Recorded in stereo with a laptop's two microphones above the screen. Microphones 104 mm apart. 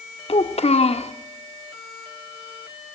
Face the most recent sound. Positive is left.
turn(degrees=75)  # may be behind; listen again after turning